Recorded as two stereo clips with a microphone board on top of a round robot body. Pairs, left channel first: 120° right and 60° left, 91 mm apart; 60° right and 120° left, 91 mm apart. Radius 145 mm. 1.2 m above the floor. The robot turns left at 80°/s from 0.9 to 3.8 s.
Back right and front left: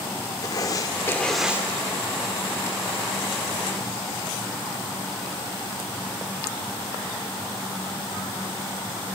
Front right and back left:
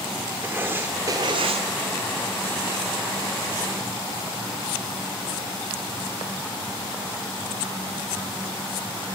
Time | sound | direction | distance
0.4 | writing | 170° right | 1.1 m